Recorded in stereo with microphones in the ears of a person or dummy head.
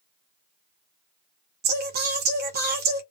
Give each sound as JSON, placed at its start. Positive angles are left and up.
{"t": 1.6, "sound": "singing", "side_deg": -55, "distance_m": 0.8}